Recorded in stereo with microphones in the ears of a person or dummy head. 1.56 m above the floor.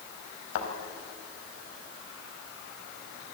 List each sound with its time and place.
0.6 s a thud: 70° left (ahead or behind), 4 m